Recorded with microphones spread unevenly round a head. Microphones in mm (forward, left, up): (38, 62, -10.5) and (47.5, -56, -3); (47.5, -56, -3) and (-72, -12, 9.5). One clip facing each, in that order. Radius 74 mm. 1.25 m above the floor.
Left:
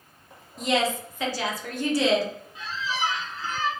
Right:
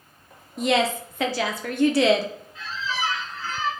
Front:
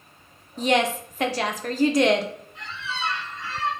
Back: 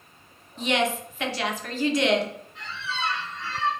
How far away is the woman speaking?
About 0.6 m.